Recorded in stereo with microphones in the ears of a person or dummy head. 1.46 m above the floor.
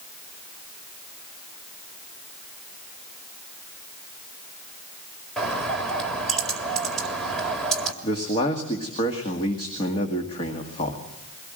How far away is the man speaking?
About 2 m.